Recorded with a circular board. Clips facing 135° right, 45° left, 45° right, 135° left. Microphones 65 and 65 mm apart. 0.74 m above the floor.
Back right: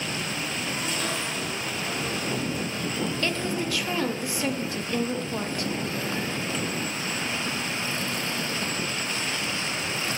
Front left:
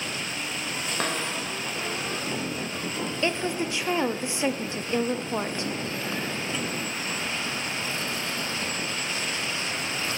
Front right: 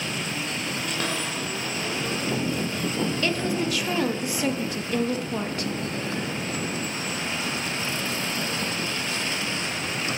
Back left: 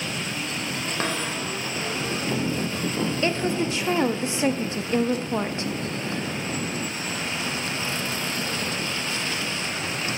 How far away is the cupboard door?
About 2.5 m.